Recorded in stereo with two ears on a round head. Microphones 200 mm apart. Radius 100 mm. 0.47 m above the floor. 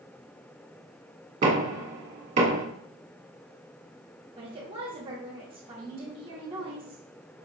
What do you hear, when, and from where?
1.4 s knocking: 35° right (ahead or behind), 1.2 m
4.4 s a woman speaking: 25° right (ahead or behind), 1.0 m